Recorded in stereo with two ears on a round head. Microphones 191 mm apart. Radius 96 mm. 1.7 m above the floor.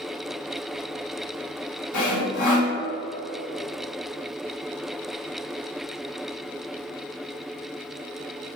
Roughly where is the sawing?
Left.